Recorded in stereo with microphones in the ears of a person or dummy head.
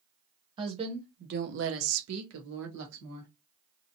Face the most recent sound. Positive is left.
turn(degrees=-55)  # may be behind; listen again after turning